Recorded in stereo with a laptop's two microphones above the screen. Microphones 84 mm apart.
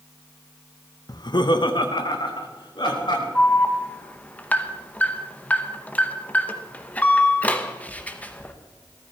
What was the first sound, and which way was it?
Laughter, 50° left (ahead or behind).